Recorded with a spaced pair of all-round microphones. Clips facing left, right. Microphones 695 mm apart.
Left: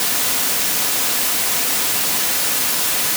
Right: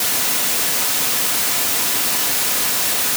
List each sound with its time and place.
Only background noise.